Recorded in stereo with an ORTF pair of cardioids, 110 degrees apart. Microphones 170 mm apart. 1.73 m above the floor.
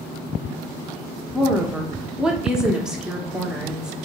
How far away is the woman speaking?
About 0.8 m.